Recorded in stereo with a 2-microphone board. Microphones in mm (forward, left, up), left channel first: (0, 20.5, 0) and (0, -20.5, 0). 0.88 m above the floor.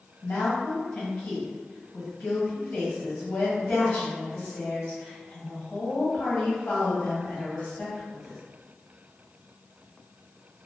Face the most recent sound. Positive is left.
turn(degrees=35)  # may be behind; listen again after turning